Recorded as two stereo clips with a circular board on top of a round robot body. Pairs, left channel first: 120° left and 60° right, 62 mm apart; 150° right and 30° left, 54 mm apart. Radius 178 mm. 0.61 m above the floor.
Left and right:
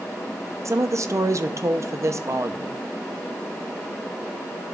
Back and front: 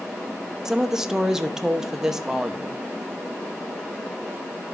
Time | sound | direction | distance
0.7 | a woman speaking | 50° right | 1.1 m